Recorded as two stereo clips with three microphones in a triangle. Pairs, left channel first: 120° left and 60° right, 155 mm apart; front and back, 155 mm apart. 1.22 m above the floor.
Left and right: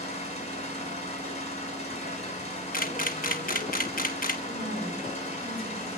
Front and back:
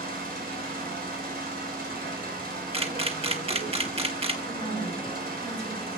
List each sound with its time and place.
0.0 s an engine running: 165° left, 5 m
2.7 s a camera shutter: 135° left, 1.0 m
4.5 s a woman speaking: 135° left, 6.5 m